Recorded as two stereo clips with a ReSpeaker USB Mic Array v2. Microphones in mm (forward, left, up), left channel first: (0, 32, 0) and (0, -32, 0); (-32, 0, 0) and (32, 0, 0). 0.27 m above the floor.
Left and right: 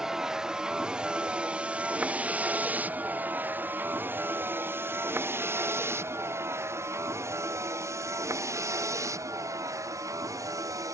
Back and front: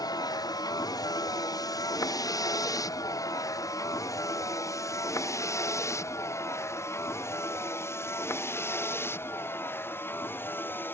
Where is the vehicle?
175° right; by 10.9 s 125° right.